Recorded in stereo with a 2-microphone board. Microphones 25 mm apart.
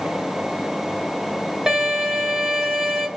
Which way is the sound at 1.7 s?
25° right (ahead or behind).